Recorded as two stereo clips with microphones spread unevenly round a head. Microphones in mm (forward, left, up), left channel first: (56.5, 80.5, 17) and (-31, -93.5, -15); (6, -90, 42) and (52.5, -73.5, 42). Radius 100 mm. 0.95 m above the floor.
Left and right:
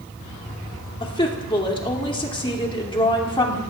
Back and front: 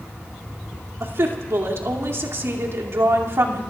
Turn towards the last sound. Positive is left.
turn(degrees=-5)